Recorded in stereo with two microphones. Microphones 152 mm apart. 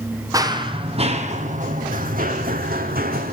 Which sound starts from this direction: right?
Running footsteps, at 0.3 s.